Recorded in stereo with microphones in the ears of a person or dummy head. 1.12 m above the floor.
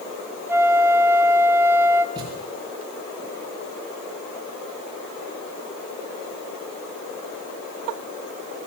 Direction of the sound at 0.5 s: 10° right (ahead or behind).